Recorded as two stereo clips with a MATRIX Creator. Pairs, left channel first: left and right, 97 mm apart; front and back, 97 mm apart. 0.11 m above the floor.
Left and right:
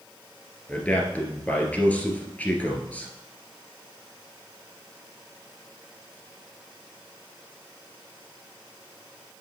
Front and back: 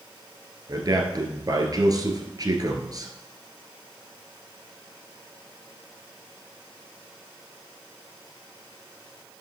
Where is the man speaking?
160° left, 1.8 m.